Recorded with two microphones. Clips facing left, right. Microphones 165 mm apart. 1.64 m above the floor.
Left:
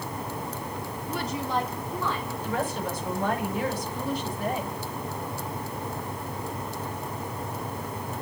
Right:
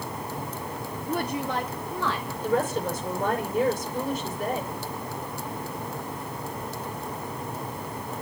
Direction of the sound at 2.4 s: 50° right (ahead or behind).